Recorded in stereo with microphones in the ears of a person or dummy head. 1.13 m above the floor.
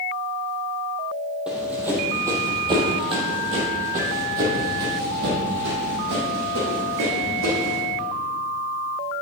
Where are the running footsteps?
5° right (ahead or behind), 2.5 m; by 7.8 s 75° right (ahead or behind), 4.5 m.